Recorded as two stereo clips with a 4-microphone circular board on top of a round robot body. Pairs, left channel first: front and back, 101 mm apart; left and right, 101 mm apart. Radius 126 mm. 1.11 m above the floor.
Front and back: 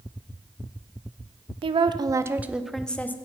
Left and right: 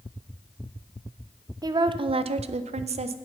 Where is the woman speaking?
145° right, 0.6 m; by 3.1 s 70° right, 0.7 m.